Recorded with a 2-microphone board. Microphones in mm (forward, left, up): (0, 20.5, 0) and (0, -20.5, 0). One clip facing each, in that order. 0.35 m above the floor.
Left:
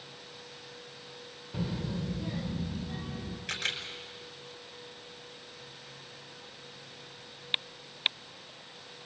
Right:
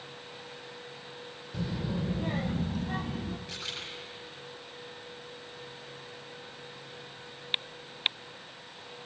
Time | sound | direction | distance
1.5 | a child speaking | 20° left (ahead or behind) | 0.5 m
3.5 | a camera shutter | 80° left | 5 m